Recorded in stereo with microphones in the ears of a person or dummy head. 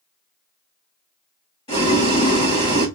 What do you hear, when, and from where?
1.7 s boiling: 25° left (ahead or behind), 1.1 m